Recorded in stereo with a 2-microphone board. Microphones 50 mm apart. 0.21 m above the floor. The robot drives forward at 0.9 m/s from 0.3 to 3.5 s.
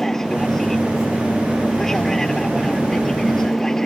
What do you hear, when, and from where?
0.0 s an aircraft: 10° left (ahead or behind)